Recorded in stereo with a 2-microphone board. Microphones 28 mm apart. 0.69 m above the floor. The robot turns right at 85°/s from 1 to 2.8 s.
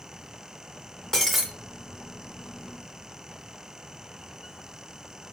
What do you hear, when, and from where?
1.1 s breaking glass: 20° left (ahead or behind), 1.6 m; by 1.5 s 10° right (ahead or behind), 1.6 m